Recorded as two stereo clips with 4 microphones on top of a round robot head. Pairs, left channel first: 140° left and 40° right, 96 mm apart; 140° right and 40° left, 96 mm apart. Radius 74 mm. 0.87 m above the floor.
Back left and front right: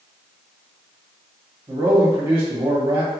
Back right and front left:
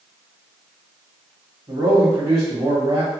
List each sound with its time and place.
1.7 s a man speaking: 5° right, 1.5 m